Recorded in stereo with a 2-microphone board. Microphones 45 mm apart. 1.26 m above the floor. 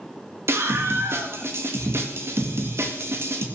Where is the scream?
70° right (ahead or behind), 2 m.